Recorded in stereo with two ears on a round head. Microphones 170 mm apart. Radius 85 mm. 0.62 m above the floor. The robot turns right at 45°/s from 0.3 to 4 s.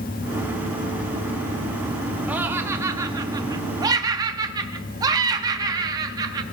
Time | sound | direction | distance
2.3 | laughter | 10° right (ahead or behind) | 0.5 m